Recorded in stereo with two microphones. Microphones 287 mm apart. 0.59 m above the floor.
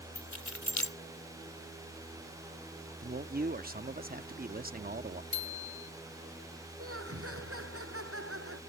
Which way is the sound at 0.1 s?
80° left.